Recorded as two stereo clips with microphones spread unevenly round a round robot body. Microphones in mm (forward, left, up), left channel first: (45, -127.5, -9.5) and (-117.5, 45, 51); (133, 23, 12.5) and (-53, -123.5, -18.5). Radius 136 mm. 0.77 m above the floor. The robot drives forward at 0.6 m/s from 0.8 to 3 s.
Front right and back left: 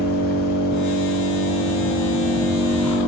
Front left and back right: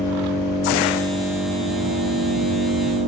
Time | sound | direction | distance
0.0 | an engine running | 95° right | 1.9 m